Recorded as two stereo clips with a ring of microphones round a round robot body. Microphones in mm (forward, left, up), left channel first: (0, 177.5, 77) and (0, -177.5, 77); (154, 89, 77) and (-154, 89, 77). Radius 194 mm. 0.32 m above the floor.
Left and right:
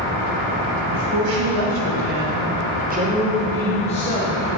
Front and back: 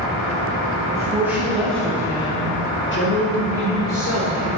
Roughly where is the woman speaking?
Right.